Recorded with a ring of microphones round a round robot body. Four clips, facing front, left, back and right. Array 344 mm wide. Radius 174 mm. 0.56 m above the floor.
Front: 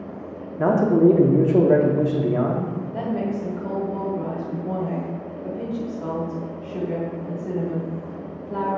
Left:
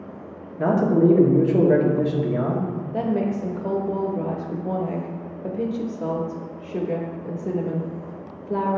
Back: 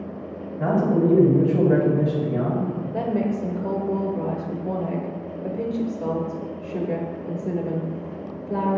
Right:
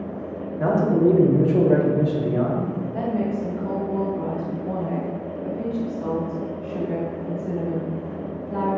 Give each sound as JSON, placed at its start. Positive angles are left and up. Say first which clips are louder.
{"t": 0.6, "sound": "a man speaking", "louder": "left 1 dB, front 4 dB", "azimuth_deg": 15, "distance_m": 1.2}
{"t": 2.9, "sound": "a woman speaking", "louder": "left 2 dB, back 2 dB", "azimuth_deg": 125, "distance_m": 0.9}